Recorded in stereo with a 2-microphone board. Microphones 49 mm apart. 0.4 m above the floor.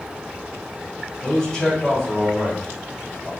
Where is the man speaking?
10° left (ahead or behind), 2.5 m.